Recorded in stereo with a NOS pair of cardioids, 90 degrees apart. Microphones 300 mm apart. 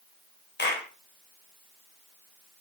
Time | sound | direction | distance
0.6 | a clap | 35° left | 4 m